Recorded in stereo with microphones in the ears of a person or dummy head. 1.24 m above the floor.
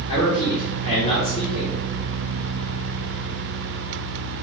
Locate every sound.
0.1 s a man speaking: 25° left (ahead or behind), 3.5 m